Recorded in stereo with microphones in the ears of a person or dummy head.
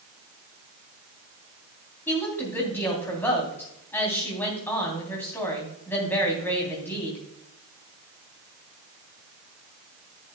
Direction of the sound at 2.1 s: 15° left (ahead or behind).